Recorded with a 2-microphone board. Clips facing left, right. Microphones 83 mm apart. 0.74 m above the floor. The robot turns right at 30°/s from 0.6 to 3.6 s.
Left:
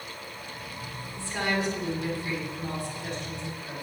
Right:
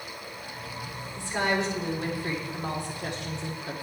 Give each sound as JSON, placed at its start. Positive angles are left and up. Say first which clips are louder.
{"t": 1.1, "sound": "a woman speaking", "louder": "right 2 dB", "azimuth_deg": -165, "distance_m": 2.0}